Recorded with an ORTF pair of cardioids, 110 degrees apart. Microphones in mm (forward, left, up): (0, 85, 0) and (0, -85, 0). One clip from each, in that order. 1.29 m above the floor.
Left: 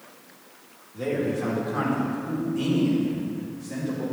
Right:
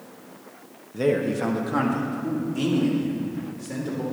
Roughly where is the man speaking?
Ahead right.